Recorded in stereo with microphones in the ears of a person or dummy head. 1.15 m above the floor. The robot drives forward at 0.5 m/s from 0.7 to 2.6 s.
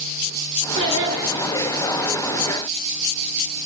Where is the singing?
25° right (ahead or behind), 7.5 m.